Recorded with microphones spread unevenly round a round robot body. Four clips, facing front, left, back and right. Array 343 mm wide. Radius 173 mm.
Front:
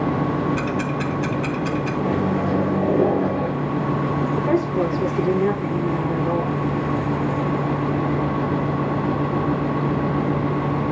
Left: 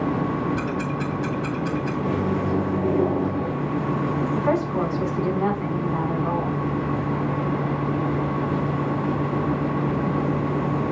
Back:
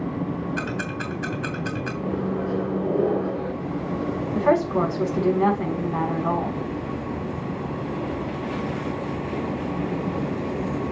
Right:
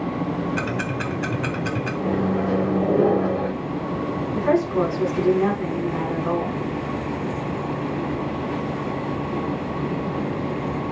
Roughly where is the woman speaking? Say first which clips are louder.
Right 5 dB, back 3 dB; behind.